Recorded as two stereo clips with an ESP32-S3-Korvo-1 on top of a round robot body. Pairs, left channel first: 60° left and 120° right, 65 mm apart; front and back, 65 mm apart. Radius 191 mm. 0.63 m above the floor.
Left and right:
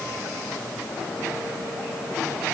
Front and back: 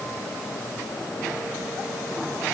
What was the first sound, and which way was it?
Only background noise.